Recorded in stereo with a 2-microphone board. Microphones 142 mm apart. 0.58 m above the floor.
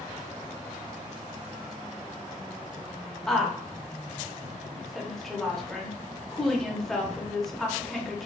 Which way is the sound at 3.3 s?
Centre (ahead or behind).